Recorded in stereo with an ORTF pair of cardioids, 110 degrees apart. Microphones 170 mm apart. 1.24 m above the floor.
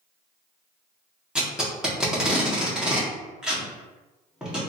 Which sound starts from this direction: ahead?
Tape being pulled, at 1.4 s.